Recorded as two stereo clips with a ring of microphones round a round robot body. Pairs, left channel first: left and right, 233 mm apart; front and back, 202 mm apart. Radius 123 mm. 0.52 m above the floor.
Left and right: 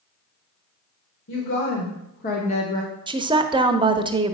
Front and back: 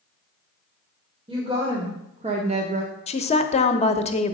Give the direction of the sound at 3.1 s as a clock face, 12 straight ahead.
1 o'clock.